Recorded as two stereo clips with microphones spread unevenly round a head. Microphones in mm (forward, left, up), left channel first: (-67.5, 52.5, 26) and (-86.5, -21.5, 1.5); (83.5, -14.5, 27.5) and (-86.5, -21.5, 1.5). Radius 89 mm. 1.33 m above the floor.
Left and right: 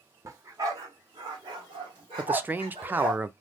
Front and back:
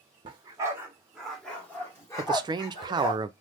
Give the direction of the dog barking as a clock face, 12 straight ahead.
5 o'clock.